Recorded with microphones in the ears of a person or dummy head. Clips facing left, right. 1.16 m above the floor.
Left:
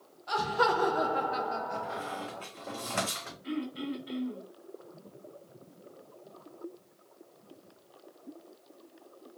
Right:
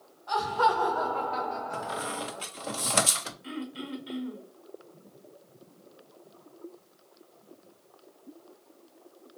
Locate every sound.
0.3 s laughter: 35° left (ahead or behind), 0.7 m; by 2.5 s 5° right (ahead or behind), 1.0 m
1.7 s a squeak: 60° right (ahead or behind), 0.5 m
3.4 s throat clearing: 50° right (ahead or behind), 1.5 m